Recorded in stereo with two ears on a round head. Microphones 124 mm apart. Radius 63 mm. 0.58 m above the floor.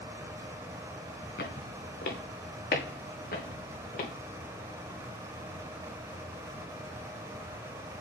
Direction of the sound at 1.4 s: 75° left (ahead or behind).